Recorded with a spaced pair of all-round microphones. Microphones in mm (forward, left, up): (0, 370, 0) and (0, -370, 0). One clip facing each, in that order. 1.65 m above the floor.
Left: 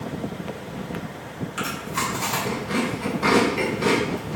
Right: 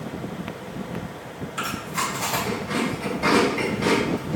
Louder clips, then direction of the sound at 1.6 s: Left 1 dB; 45° left (ahead or behind).